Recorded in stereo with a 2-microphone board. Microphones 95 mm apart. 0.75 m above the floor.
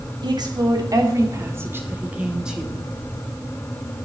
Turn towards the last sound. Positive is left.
turn(degrees=0)  # may be behind; listen again after turning